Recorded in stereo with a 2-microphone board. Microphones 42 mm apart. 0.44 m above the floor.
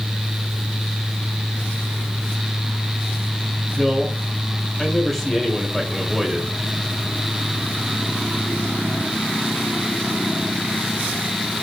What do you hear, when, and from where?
3.8 s a man speaking: 5° left (ahead or behind), 2 m